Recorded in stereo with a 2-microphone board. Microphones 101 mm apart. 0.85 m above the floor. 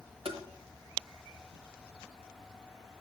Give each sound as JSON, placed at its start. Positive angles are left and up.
{"t": 0.2, "sound": "tapping", "side_deg": -70, "distance_m": 1.3}